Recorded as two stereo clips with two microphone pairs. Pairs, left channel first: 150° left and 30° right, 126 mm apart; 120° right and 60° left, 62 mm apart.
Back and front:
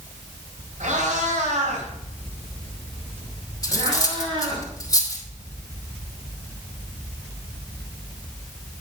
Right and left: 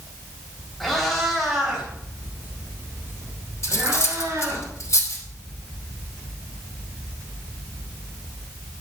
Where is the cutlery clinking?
150° right, 2.5 m.